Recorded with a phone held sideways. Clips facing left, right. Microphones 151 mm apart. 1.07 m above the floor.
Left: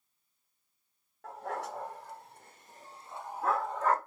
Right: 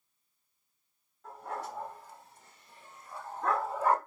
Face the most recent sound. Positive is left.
turn(degrees=-15)  # may be behind; listen again after turning